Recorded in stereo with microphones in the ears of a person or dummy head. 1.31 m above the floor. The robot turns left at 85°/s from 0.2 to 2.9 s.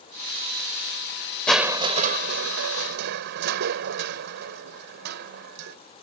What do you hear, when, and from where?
1.5 s crushing: 5° left; by 5.8 s 120° right